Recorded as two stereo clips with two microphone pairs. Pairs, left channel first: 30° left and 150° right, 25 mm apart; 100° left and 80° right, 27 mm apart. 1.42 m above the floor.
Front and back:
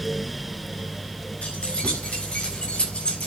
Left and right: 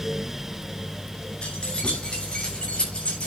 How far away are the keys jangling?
About 5.5 m.